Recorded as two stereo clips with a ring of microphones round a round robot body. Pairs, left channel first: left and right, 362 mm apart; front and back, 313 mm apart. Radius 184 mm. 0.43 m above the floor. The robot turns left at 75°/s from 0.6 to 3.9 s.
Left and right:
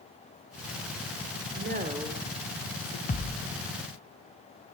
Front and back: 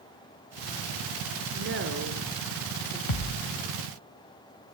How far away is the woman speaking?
About 1.6 m.